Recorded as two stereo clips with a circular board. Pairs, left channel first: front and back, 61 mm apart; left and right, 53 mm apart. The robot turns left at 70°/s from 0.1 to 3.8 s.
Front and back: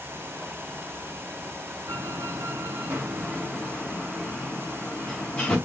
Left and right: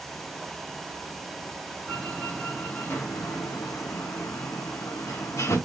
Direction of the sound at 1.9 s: 150° right.